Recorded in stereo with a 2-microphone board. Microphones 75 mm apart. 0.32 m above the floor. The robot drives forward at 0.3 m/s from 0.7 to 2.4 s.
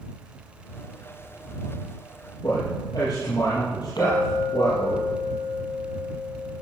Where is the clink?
75° left (ahead or behind), 6 m.